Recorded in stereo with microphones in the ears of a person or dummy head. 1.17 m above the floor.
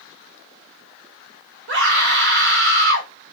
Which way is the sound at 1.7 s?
60° right (ahead or behind).